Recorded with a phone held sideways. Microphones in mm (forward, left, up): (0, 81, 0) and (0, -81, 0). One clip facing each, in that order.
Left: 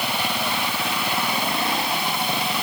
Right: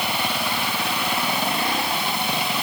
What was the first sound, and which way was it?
Only background noise.